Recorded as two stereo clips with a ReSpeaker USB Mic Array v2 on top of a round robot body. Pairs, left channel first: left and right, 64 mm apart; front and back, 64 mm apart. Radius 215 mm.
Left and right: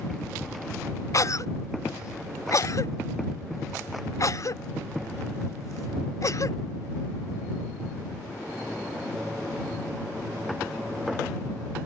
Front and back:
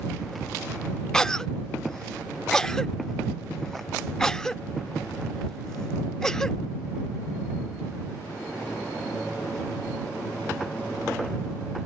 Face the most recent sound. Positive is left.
turn(degrees=80)